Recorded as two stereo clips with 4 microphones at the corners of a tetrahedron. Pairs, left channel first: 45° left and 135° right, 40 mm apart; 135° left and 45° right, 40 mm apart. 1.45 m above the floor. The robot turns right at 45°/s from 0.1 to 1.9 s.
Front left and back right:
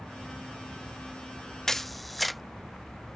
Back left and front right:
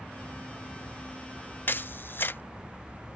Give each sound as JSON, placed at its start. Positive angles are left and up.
{"t": 1.7, "sound": "a camera shutter", "azimuth_deg": 125}